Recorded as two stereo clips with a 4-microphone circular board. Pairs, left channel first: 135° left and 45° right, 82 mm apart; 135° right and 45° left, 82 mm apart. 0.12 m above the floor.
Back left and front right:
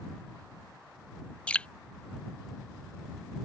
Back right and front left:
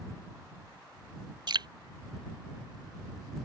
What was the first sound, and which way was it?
Dripping, 60° left.